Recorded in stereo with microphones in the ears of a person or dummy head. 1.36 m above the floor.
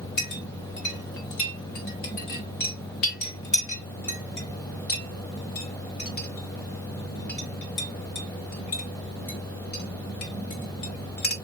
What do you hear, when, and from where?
0.2 s a clink: 50° left (ahead or behind), 1.0 m